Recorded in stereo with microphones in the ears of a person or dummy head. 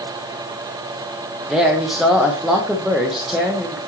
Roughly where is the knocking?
I don't hear knocking.